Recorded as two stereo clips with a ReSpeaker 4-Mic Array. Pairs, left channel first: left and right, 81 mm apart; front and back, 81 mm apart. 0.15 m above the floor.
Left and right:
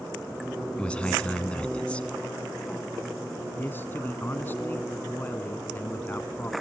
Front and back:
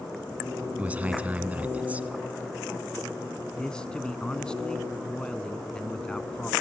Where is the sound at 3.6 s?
65° left, 1.1 m.